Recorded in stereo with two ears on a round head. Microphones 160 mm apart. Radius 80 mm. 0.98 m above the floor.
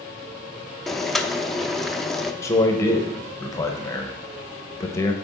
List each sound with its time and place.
0.9 s boiling: centre (ahead or behind), 0.6 m
2.4 s a man speaking: 15° left (ahead or behind), 1.0 m